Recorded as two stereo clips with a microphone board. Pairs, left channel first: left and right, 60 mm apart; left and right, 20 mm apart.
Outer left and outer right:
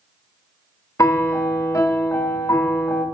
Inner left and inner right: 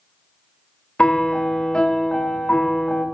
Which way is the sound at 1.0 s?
65° left (ahead or behind).